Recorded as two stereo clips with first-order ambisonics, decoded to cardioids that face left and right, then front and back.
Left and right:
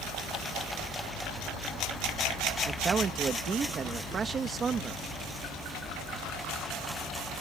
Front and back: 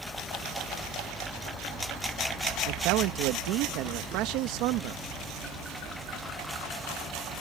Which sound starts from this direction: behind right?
A man speaking, at 2.6 s.